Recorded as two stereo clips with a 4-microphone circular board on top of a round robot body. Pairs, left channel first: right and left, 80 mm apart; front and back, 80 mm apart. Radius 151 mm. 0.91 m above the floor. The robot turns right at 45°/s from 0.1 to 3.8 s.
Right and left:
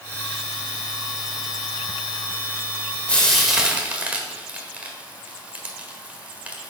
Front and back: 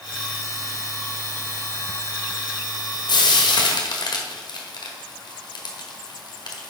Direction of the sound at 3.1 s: 15° right.